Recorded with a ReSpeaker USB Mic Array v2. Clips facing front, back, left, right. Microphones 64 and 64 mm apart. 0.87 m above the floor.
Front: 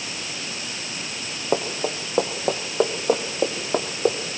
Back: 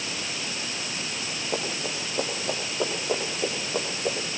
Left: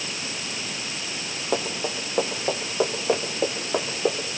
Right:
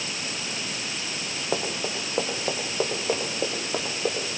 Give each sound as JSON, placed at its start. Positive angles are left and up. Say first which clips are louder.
{"t": 1.5, "sound": "running footsteps", "louder": "front 8 dB, left 2 dB", "azimuth_deg": 0, "distance_m": 6.5}